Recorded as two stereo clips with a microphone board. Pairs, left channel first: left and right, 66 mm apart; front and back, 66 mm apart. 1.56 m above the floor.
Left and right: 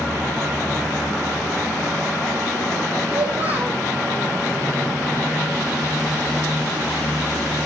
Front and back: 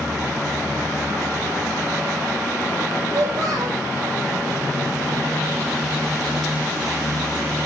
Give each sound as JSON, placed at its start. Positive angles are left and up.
{"t": 3.1, "sound": "a child speaking", "azimuth_deg": -150, "distance_m": 5.0}